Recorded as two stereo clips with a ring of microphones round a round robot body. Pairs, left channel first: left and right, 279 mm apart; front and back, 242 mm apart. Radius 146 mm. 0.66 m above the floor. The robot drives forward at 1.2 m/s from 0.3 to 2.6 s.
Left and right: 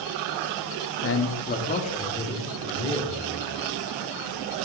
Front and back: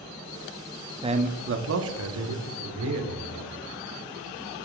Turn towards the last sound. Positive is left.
turn(degrees=165)